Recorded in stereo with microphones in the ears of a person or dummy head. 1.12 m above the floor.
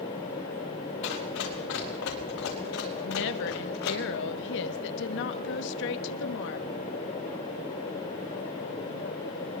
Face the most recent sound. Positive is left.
turn(degrees=60)  # may be behind; listen again after turning